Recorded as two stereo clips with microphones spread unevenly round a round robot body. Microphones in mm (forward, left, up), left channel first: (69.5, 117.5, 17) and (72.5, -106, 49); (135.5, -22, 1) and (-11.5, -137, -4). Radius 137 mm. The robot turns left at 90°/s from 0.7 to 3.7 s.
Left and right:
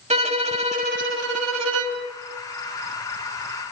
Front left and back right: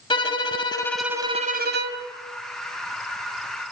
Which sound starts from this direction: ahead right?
A violin, at 0.1 s.